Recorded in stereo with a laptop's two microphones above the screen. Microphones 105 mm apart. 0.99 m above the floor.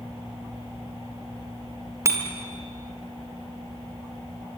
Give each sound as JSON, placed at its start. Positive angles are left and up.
{"t": 2.0, "sound": "a bicycle bell", "side_deg": -30, "distance_m": 2.0}